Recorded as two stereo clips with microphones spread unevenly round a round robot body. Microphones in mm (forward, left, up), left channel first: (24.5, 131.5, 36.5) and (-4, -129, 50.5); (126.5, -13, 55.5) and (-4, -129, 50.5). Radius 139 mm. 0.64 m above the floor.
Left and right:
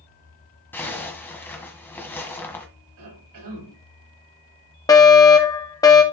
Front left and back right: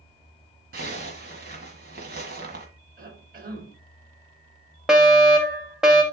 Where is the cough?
105° right, 5 m.